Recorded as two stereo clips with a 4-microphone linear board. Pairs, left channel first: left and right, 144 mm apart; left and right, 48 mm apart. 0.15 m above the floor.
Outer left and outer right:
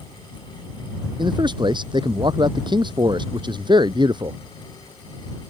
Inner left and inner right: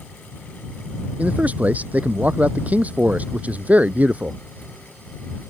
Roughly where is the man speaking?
Right.